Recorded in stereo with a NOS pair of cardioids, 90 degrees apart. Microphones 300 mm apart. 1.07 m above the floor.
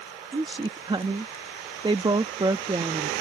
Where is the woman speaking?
15° right.